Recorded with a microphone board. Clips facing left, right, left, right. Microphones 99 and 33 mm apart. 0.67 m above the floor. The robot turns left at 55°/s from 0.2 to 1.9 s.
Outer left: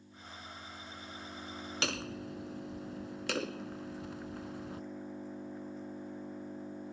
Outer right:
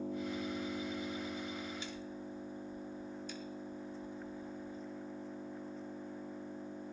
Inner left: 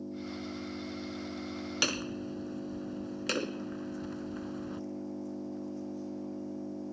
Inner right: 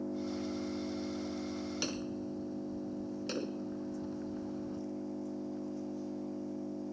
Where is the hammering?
85° left; by 4.8 s 90° left.